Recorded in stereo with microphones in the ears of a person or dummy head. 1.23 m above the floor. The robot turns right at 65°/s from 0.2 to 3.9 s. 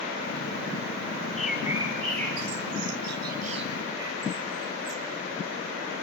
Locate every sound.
1.4 s a bird: 5° left (ahead or behind), 4.5 m; by 5.0 s 20° right (ahead or behind), 4.5 m